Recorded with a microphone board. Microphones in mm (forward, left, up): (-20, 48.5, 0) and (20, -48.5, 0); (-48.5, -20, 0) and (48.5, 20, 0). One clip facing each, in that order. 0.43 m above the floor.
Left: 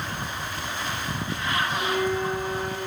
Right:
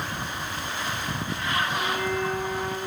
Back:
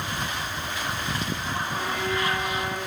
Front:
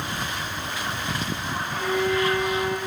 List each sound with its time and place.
1.7 s a violin: 95° right, 8.5 m